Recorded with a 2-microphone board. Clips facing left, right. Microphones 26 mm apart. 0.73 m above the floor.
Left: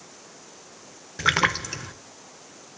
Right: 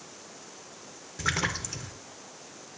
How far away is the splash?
About 0.6 m.